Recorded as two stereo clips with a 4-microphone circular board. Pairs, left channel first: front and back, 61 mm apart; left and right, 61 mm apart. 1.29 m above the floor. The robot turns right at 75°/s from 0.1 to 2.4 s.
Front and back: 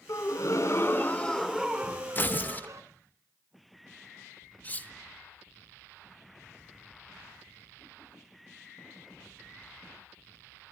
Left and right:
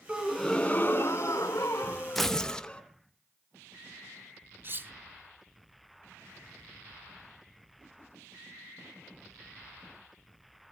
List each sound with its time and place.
0.1 s a gasp: 10° right, 1.9 m; by 2.8 s 160° left, 1.9 m
2.1 s tearing paper: 5° left, 0.6 m; by 2.7 s 25° left, 0.6 m
4.6 s cutlery clinking: 55° right, 0.5 m